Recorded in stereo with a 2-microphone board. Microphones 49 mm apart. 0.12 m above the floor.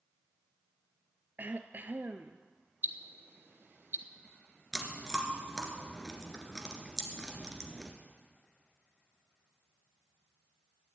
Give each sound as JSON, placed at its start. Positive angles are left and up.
{"t": 1.4, "sound": "throat clearing", "side_deg": -45, "distance_m": 0.8}
{"t": 2.8, "sound": "ticking", "side_deg": -55, "distance_m": 0.9}
{"t": 4.7, "sound": "chewing", "side_deg": 10, "distance_m": 2.0}